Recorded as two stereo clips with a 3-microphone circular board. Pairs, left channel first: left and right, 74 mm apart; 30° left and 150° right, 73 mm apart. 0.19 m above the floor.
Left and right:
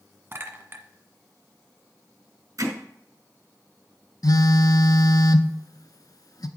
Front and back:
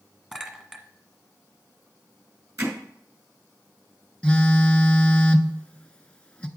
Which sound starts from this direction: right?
A clink, at 0.3 s.